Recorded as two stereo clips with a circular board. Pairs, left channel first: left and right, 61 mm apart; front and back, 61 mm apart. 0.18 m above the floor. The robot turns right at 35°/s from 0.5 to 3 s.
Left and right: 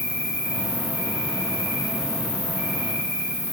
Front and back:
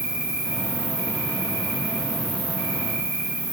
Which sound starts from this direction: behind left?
An insect, at 0.0 s.